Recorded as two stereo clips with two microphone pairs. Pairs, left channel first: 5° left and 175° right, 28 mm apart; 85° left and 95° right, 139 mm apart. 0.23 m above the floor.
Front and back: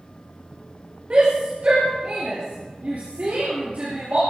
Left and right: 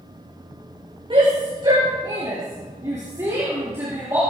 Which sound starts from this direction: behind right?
A shout, at 1.1 s.